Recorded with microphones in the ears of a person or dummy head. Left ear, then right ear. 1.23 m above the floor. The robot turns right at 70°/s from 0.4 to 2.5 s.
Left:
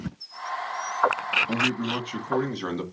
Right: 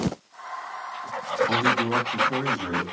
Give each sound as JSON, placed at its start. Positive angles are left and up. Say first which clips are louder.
{"t": 1.5, "sound": "a man speaking", "louder": "right 4 dB", "azimuth_deg": -35, "distance_m": 2.5}